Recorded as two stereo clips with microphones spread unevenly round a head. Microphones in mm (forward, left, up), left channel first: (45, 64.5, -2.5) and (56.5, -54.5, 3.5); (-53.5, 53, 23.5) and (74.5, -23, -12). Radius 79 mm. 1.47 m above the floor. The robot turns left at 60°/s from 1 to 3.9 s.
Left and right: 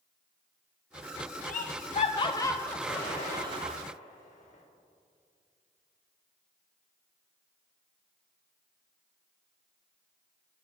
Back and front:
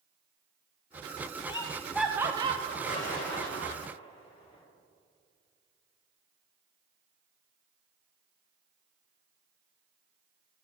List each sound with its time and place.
1.5 s laughter: 90° left, 0.5 m; by 3.8 s 50° right, 0.5 m
2.9 s an explosion: 170° left, 3.5 m; by 4.6 s 105° left, 3.5 m